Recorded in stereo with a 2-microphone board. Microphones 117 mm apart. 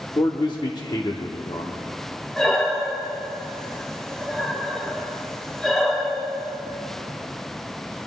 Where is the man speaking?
40° left (ahead or behind), 0.9 m.